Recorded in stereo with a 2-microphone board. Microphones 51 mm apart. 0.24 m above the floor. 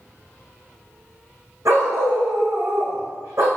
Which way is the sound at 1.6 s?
75° right (ahead or behind).